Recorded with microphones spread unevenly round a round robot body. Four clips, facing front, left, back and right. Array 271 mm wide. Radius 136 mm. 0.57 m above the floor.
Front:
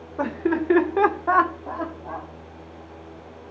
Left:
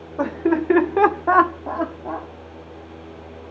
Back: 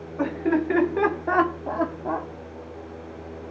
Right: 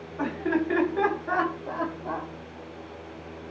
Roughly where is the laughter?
Ahead left.